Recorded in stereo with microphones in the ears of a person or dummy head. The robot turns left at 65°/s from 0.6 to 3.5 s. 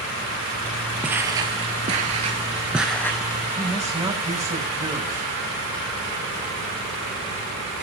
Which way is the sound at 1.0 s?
5° right (ahead or behind).